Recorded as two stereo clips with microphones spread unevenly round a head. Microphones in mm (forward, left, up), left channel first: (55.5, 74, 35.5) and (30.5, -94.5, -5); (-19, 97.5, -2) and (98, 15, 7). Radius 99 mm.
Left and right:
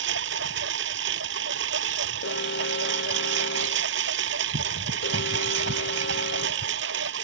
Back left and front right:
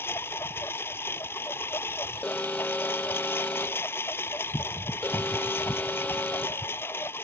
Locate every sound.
0.0 s a lawn mower: 135° right
2.2 s an alarm: 65° left